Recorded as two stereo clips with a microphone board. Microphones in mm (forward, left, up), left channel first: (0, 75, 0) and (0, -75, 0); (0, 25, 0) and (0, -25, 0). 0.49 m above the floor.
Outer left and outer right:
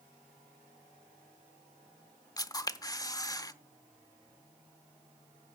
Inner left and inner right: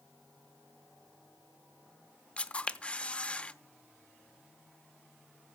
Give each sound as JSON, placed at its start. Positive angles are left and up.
{"t": 2.4, "sound": "a camera shutter", "side_deg": 25, "distance_m": 0.7}